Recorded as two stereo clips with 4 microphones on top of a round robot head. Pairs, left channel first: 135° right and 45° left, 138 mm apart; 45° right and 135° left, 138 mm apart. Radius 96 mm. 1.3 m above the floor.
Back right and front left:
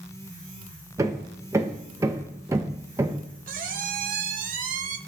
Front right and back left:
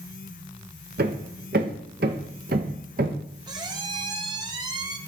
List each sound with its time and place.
1.0 s hammering: 110° left, 0.6 m
3.5 s a squeak: 70° left, 0.6 m